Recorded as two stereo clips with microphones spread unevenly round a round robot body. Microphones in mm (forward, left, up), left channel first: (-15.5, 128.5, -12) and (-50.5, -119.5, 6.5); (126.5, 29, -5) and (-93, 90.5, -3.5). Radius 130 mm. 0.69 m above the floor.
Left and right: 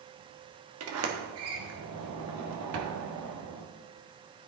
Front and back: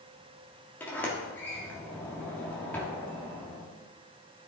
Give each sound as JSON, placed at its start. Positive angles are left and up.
{"t": 0.8, "sound": "a sliding door", "azimuth_deg": -95, "distance_m": 1.3}